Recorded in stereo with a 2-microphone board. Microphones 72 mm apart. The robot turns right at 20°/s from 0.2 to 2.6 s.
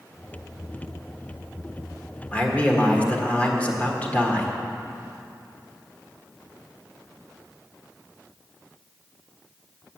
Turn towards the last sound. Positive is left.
turn(degrees=20)  # may be behind; listen again after turning